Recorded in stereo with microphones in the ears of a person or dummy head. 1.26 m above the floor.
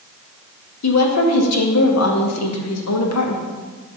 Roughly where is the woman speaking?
Left.